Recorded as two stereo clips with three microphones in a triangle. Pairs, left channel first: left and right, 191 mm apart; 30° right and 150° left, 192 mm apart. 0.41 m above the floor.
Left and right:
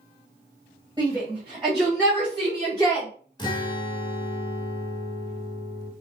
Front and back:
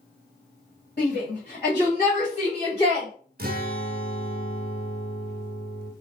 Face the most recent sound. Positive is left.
turn(degrees=150)